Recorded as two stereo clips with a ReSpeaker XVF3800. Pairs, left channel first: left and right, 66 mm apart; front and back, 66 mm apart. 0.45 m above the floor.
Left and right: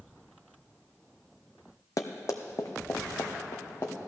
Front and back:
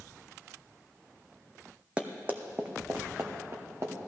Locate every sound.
2.0 s running footsteps: 110° left, 0.9 m; by 4.0 s 135° left, 2 m